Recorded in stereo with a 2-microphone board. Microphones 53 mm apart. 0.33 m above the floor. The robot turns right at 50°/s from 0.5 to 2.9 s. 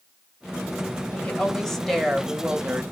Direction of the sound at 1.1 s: 135° left.